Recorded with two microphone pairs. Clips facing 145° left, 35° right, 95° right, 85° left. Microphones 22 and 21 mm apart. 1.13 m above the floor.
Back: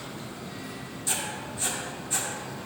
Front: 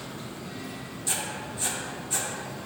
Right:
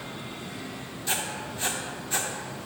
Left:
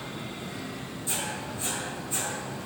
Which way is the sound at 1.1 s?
125° right.